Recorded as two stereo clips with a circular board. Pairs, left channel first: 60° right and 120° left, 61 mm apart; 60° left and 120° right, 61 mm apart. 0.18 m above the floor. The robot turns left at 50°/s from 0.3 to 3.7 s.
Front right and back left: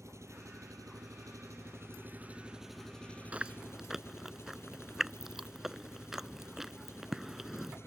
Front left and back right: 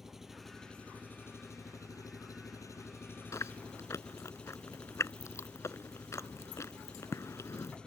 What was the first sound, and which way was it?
An engine running, 155° left.